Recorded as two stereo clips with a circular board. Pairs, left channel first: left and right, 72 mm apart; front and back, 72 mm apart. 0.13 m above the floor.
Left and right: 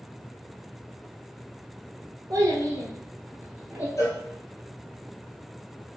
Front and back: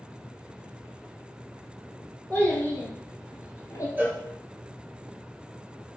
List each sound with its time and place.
2.3 s a child speaking: 70° right, 1.1 m; by 3.9 s 15° right, 1.1 m
4.0 s a cowbell: 120° left, 0.9 m